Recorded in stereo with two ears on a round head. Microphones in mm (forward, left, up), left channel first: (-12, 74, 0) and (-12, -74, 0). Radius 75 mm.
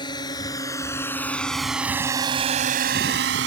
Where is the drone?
25° left (ahead or behind); by 3.5 s 80° right.